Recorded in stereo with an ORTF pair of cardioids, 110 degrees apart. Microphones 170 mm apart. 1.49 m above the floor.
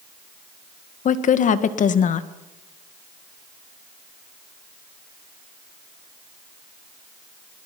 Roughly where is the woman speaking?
Ahead left.